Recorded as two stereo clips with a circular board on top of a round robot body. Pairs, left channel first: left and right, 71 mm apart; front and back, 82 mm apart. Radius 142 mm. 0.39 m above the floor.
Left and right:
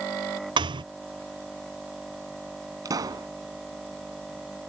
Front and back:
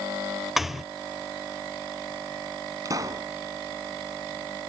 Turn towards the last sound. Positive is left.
turn(degrees=-130)